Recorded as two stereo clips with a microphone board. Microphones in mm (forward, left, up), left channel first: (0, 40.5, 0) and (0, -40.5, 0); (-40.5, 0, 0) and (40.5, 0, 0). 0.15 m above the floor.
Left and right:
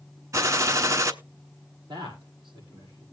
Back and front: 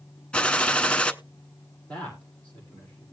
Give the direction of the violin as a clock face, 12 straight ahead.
No violin in this recording.